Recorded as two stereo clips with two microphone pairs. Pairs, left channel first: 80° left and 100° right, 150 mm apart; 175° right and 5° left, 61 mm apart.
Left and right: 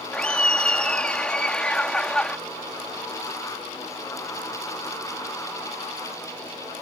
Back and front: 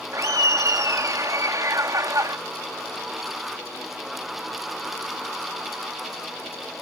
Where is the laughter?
Straight ahead.